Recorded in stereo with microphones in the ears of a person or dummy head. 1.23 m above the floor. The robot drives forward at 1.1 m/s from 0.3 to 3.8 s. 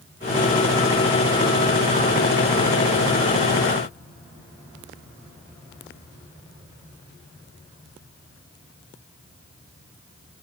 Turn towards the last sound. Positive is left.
No sound to turn to.